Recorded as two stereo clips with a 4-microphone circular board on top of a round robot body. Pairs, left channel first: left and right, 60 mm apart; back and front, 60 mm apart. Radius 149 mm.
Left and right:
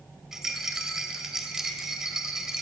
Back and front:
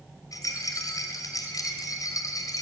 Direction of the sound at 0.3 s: 170° right.